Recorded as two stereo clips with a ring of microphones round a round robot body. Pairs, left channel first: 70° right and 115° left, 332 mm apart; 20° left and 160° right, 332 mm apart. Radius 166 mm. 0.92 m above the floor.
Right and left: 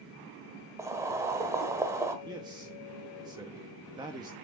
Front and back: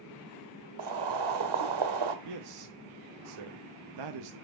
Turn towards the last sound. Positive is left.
turn(degrees=-170)